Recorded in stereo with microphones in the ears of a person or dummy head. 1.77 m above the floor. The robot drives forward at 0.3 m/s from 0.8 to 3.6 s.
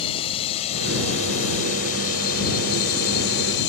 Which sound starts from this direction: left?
A drone, at 0.0 s.